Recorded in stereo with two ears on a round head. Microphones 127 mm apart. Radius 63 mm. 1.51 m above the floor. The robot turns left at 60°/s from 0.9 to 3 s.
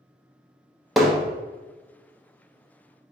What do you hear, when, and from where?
1.0 s hammering: centre (ahead or behind), 0.8 m; by 1.2 s 10° right (ahead or behind), 0.8 m